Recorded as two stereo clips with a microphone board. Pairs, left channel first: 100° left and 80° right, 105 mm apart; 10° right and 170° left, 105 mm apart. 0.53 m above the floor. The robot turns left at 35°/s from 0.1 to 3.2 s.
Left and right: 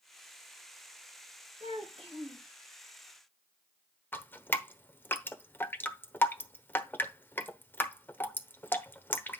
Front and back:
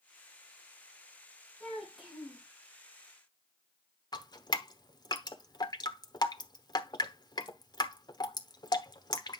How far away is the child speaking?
About 5.5 m.